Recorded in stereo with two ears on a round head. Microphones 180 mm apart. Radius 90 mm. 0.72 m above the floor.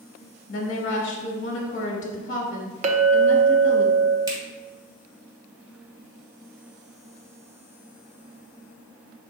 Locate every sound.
0.5 s a woman speaking: 40° left (ahead or behind), 0.9 m
2.8 s a clink: 35° right (ahead or behind), 0.5 m
4.3 s a finger snap: 20° right (ahead or behind), 1.6 m